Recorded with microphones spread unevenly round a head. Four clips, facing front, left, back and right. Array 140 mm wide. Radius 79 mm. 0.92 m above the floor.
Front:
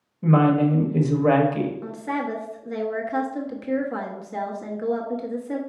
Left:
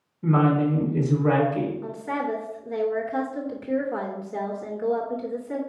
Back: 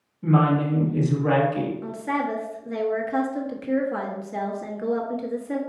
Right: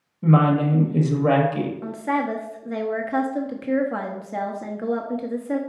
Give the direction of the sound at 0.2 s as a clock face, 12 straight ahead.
2 o'clock.